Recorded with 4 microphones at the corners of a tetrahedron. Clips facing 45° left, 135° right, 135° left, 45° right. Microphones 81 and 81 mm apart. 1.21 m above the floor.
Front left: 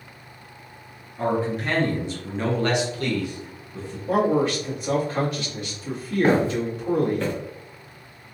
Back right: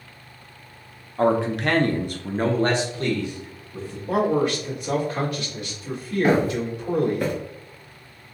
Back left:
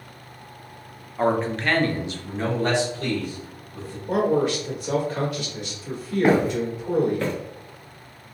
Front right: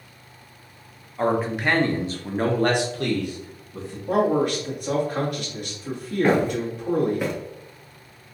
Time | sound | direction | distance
1.2 | a man speaking | 140° right | 0.7 m
4.1 | a man speaking | 15° right | 1.9 m
6.2 | footsteps | 65° left | 1.4 m